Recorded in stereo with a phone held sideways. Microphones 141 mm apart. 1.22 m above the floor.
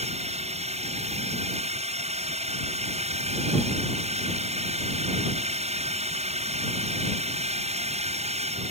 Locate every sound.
0.0 s a drone: 50° right (ahead or behind)